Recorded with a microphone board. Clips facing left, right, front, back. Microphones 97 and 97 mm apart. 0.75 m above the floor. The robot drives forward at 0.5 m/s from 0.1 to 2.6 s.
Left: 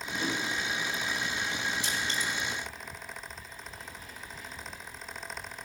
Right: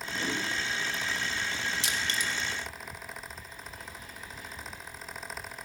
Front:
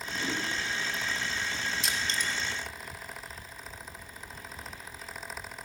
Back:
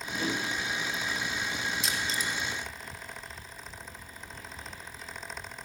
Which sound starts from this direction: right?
Crushing, at 1.8 s.